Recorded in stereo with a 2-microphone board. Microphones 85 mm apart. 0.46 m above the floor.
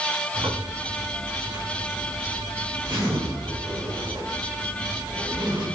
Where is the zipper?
70° right (ahead or behind), 4 m.